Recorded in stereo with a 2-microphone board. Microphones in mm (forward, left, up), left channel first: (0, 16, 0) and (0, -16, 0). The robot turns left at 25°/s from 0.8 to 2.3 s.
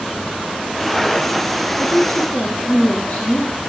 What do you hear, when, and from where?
1.8 s a woman speaking: 55° left (ahead or behind), 2.5 m; by 3.6 s 60° left (ahead or behind), 2.5 m